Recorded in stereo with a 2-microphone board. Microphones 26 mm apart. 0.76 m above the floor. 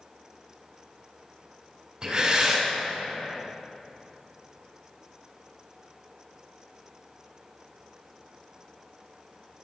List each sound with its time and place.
2.0 s breathing: 30° right (ahead or behind), 2.5 m